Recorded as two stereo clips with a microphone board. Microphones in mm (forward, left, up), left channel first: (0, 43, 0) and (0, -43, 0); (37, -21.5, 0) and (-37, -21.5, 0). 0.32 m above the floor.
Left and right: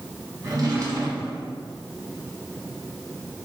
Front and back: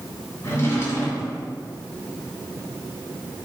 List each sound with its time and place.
0.4 s a drawer: 45° right, 1.6 m